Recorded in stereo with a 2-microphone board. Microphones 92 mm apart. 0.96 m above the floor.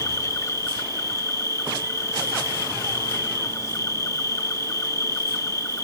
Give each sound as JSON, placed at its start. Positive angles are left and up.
{"t": 0.0, "sound": "an insect", "side_deg": 35}